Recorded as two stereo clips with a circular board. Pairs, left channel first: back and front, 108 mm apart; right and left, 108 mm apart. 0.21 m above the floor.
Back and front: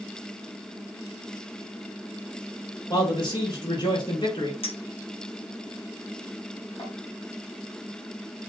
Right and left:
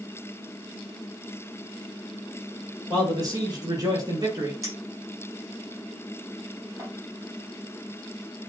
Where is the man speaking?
140° left, 5 m.